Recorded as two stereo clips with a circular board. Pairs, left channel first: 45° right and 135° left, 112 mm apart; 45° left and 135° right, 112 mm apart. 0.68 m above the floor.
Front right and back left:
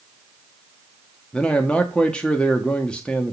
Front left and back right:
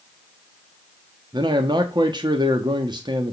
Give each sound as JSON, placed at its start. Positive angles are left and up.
{"t": 1.3, "sound": "a man speaking", "azimuth_deg": -120, "distance_m": 1.3}